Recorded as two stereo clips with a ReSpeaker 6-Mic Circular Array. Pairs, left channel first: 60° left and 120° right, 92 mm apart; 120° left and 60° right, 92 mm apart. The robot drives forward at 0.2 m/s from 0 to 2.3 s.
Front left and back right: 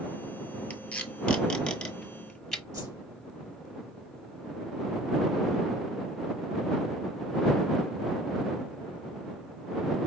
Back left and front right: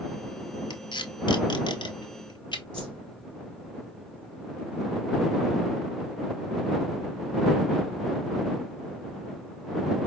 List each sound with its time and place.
0.7 s tape being pulled: 130° left, 0.9 m; by 2.6 s 145° left, 1.1 m
2.7 s a whoosh: 165° right, 3 m